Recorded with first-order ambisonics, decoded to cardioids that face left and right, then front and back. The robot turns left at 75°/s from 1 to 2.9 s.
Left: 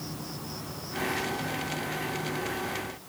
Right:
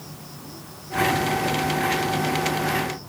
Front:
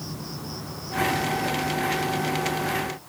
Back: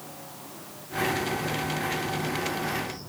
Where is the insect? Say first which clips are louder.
Left 2 dB, front 6 dB; 15° left; by 3.1 s 130° right.